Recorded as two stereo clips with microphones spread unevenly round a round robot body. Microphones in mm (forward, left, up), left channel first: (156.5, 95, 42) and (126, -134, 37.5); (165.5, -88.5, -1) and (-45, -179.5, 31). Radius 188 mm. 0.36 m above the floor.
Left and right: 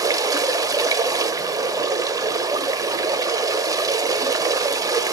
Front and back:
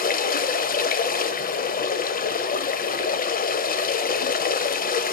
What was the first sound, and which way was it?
Running water, 20° right.